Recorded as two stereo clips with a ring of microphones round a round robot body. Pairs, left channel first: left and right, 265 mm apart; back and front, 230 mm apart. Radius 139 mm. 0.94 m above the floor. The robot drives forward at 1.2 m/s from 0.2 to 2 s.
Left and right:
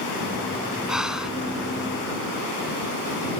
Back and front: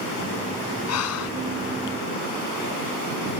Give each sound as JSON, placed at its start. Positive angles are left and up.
{"t": 0.9, "sound": "breathing", "azimuth_deg": -175}